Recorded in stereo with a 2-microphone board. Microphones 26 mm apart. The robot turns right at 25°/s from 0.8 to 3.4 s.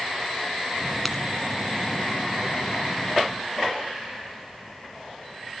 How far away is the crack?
About 1.0 m.